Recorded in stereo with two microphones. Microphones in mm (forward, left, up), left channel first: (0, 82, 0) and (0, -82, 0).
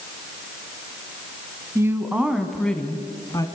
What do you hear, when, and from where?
1.8 s a woman speaking: 15° right (ahead or behind), 1.6 m; by 3.5 s 25° left (ahead or behind), 1.7 m